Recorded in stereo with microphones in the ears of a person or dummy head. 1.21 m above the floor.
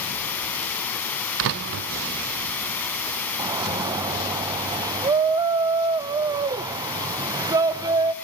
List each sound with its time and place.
0.0 s running water: 5° left (ahead or behind), 2.5 m
1.4 s a door slam: 55° right (ahead or behind), 0.5 m
3.4 s a shout: 20° right (ahead or behind), 0.5 m